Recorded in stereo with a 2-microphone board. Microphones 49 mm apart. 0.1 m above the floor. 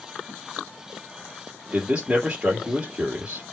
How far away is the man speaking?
About 2.5 m.